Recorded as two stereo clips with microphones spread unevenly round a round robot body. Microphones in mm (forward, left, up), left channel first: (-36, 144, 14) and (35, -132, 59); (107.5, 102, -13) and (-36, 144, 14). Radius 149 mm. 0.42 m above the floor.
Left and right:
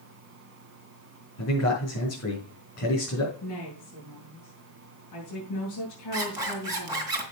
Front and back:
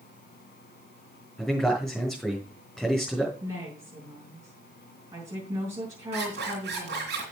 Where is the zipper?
155° right, 2.5 m.